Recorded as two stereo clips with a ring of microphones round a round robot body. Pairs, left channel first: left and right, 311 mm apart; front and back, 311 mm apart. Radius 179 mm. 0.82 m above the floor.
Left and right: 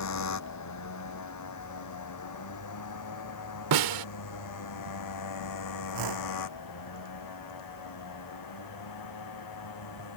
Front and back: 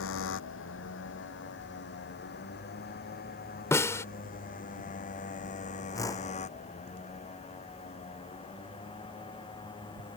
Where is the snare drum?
80° right.